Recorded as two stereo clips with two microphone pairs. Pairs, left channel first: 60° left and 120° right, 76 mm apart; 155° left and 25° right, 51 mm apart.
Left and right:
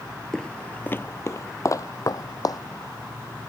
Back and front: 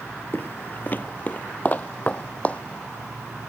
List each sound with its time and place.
0.3 s footsteps: 140° left; by 2.6 s 95° left